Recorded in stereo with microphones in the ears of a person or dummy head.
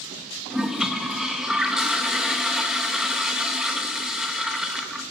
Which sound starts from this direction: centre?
A toilet flushing, at 0.5 s.